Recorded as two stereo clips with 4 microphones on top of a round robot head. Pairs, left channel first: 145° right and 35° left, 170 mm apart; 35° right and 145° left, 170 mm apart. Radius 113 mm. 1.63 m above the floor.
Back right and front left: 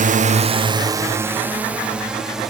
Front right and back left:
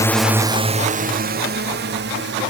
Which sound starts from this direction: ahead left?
A drone, at 0.0 s.